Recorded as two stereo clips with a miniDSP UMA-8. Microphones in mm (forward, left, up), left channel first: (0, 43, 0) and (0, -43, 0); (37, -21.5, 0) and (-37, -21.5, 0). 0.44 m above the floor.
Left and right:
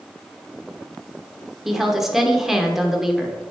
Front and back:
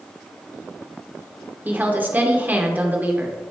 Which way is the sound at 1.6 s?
170° right.